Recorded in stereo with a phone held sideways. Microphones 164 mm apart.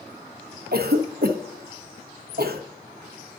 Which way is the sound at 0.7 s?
70° right (ahead or behind).